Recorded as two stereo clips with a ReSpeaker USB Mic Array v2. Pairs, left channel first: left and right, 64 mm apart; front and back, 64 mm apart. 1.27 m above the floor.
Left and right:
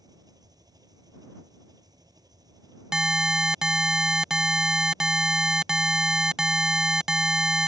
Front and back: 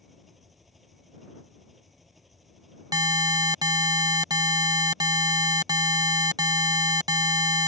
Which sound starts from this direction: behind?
An alarm, at 2.9 s.